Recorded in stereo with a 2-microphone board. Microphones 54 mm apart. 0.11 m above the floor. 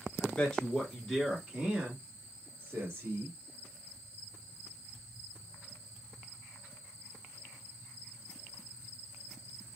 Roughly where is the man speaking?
Left.